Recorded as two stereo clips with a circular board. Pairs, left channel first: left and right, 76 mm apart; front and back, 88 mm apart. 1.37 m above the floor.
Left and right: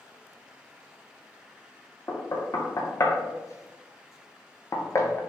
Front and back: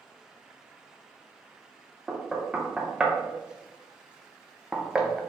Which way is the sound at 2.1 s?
105° left.